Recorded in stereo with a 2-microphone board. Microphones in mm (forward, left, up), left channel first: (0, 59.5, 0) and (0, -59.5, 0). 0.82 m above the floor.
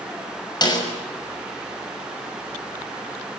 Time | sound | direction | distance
0.6 | a snare drum | 35° left (ahead or behind) | 6 m